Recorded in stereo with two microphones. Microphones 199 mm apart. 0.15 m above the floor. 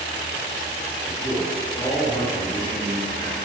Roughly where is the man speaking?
Left.